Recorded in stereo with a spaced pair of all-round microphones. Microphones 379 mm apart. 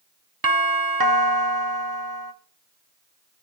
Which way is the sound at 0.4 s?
65° right (ahead or behind).